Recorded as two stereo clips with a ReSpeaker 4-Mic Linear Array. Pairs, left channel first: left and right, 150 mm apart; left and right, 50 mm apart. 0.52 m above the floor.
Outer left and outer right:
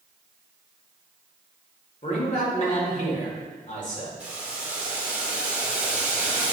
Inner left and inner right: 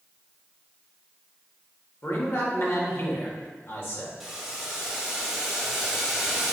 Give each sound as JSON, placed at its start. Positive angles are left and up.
{"t": 2.0, "sound": "a man speaking", "side_deg": 55, "distance_m": 1.9}
{"t": 4.2, "sound": "boiling", "side_deg": -10, "distance_m": 1.5}